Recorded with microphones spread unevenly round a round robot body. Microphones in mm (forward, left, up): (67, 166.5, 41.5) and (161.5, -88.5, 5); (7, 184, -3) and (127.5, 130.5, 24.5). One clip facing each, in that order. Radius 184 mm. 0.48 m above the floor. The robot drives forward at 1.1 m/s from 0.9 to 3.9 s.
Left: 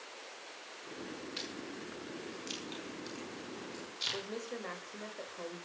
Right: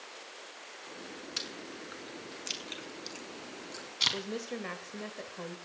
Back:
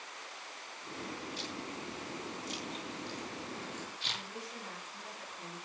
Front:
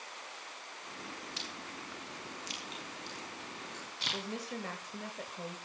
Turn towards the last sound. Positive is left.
turn(degrees=-30)